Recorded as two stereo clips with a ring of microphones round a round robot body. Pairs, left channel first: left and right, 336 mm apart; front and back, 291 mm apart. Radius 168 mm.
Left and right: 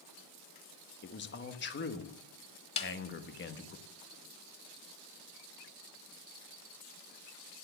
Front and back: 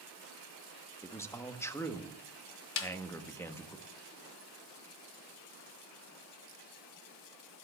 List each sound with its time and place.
1.0 s a man speaking: 75° left, 1.1 m
2.8 s a snare drum: 15° left, 1.1 m